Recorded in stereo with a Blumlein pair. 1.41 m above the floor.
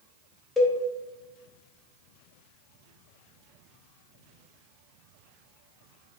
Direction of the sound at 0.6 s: 15° left.